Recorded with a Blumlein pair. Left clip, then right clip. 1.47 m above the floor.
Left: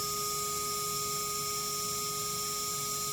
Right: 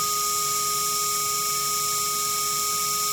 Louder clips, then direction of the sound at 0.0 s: Right 9 dB; 35° right.